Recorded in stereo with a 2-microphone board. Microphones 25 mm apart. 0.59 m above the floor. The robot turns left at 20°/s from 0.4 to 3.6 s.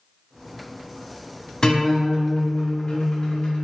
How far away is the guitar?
About 1.5 m.